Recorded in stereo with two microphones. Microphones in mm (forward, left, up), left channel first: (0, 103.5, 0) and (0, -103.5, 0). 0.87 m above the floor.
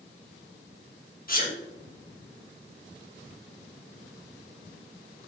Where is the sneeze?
45° left (ahead or behind), 3 m.